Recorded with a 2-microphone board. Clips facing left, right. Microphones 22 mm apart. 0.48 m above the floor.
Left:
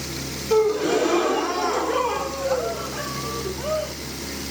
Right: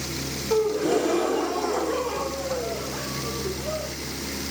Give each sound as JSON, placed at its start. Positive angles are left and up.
{"t": 0.5, "sound": "a gasp", "side_deg": 40, "distance_m": 0.8}